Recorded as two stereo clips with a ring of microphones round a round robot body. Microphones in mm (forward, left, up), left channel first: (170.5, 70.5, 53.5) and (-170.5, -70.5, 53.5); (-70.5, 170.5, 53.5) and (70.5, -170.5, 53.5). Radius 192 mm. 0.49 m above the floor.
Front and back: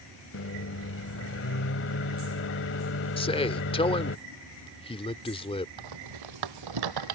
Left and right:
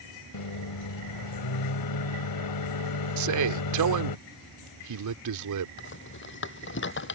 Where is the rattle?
175° left.